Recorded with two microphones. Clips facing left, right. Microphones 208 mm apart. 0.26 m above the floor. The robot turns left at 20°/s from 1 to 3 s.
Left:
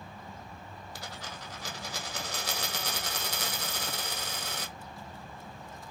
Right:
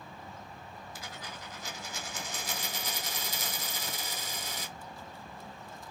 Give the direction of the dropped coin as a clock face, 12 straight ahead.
8 o'clock.